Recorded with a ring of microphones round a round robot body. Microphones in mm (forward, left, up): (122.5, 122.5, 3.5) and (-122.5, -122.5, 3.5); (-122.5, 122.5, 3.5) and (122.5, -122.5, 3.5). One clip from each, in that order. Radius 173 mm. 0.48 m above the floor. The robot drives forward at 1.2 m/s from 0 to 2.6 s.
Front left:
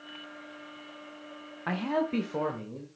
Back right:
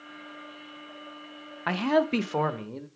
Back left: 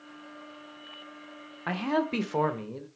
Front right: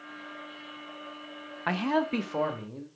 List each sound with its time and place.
1.7 s a man speaking: 100° right, 0.9 m; by 2.9 s 160° right, 1.5 m